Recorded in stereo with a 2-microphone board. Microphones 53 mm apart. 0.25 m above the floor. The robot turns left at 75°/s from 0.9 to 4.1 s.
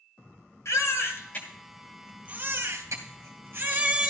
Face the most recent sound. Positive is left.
turn(degrees=-165)